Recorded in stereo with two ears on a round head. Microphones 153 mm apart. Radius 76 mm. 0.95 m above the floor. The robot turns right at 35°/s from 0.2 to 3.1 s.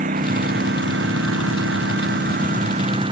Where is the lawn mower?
130° right; by 3.1 s 30° right.